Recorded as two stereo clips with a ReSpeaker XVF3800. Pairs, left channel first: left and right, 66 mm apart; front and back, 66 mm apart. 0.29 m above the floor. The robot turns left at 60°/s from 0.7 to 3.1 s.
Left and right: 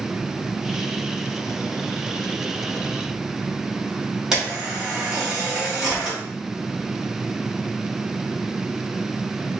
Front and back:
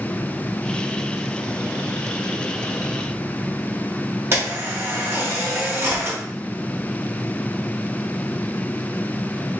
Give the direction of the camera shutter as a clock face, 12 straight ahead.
6 o'clock.